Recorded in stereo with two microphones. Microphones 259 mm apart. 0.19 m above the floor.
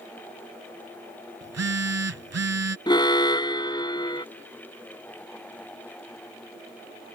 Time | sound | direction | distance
1.4 | a phone buzzing | 70° right (ahead or behind) | ?
2.9 | an alarm | 15° left (ahead or behind) | ?